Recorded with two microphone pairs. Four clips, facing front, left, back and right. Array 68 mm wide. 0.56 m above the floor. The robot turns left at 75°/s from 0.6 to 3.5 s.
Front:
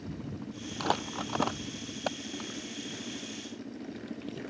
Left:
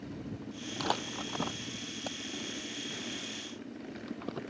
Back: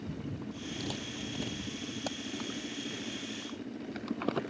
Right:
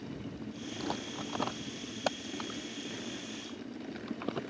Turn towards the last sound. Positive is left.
turn(degrees=-170)